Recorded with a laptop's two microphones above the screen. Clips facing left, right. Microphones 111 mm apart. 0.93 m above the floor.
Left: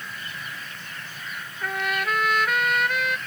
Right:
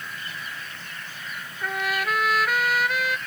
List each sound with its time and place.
1.6 s a trumpet: centre (ahead or behind)